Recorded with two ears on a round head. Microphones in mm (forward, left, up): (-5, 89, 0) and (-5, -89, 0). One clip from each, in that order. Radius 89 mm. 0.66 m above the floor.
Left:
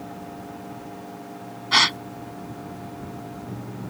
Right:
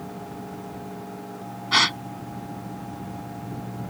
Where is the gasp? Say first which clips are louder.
Left 2 dB; 15° left (ahead or behind).